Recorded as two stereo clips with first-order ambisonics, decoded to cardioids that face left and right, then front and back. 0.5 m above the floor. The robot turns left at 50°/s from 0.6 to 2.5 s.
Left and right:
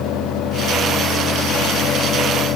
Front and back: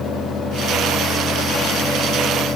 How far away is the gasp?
I don't hear a gasp.